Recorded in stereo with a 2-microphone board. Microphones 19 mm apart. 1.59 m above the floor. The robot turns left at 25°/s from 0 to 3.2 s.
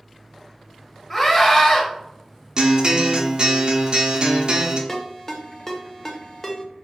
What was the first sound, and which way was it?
A scream, 15° left (ahead or behind).